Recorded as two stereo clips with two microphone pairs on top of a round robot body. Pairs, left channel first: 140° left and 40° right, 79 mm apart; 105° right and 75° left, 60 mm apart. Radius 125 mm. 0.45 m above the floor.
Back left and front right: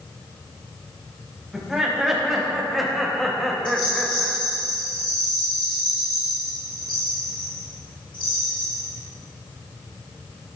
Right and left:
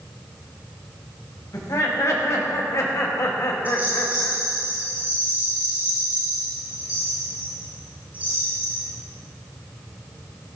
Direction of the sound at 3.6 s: 140° left.